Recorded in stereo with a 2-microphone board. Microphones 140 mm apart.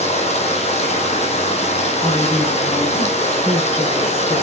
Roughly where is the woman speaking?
Left.